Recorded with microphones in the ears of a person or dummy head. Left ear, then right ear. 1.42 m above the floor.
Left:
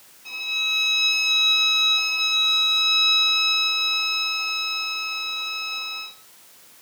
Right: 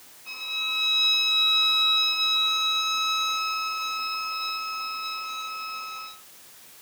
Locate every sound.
0.2 s a violin: 65° left (ahead or behind), 5.5 m